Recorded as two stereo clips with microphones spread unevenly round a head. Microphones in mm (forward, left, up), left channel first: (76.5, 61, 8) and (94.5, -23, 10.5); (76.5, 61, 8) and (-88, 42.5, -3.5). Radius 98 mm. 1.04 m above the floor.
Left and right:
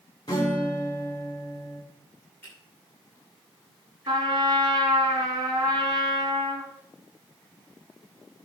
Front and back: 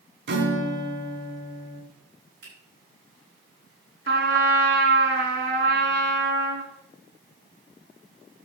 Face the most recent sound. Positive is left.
turn(degrees=-135)